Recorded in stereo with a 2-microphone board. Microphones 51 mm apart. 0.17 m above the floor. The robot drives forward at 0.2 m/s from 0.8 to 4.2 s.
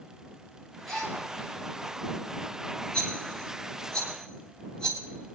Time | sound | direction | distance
0.9 | a gasp | 5° left (ahead or behind) | 7 m
2.9 | a rattle | 15° left (ahead or behind) | 3 m